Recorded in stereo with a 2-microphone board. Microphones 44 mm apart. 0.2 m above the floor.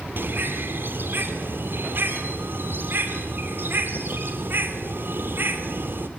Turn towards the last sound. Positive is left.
turn(degrees=-55)  # may be behind; listen again after turning